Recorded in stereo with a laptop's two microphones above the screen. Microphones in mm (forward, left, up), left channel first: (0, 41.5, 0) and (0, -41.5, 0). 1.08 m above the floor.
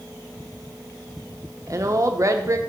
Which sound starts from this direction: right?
A woman speaking, at 1.7 s.